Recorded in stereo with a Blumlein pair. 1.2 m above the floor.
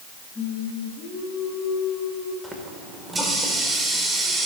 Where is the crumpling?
No crumpling in this recording.